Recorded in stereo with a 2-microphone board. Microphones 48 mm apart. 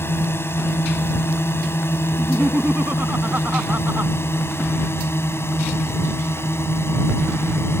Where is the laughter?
40° right (ahead or behind).